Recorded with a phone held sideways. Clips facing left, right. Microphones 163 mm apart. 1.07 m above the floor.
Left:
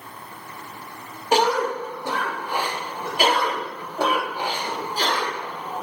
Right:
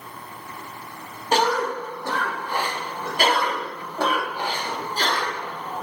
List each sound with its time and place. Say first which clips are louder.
1.3 s a cough: left 2 dB; 10° left (ahead or behind), 0.7 m